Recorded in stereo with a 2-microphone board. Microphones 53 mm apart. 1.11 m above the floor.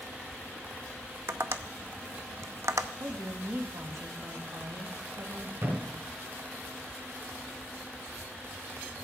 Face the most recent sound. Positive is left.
turn(degrees=-60)  # may be behind; listen again after turning